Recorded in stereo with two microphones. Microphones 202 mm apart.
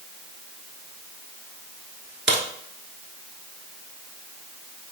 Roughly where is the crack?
Right.